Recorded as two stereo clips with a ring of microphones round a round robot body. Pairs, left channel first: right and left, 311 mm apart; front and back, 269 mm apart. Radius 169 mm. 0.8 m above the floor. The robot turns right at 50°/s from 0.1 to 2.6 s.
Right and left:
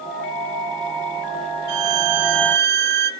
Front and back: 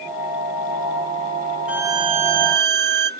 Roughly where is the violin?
Left.